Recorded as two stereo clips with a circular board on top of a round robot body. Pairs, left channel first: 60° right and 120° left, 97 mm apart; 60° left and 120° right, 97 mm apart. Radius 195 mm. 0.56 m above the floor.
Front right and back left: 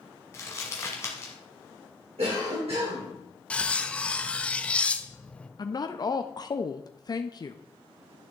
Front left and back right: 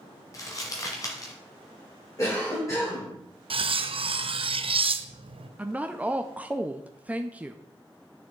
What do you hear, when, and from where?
0.3 s crumpling: 5° left, 1.4 m
2.2 s a cough: 120° left, 3.5 m
3.5 s cutlery clinking: 135° right, 0.7 m
5.6 s a woman speaking: 50° right, 0.7 m